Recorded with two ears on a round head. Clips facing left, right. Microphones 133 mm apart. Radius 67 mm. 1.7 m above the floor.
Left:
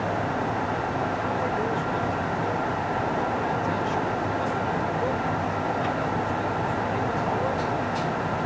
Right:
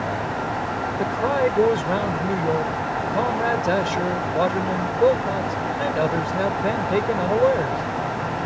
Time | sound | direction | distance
1.0 | a man speaking | 85° right | ?